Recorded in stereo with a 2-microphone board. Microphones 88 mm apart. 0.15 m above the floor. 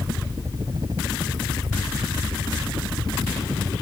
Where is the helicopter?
50° right (ahead or behind); by 3.8 s 60° right (ahead or behind).